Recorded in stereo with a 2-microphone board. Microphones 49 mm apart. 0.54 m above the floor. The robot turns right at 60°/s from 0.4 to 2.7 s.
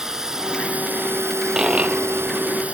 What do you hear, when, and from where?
0.0 s a drone: 170° right; by 2.8 s 30° right
1.5 s a dropped coin: 170° right; by 2.6 s 100° right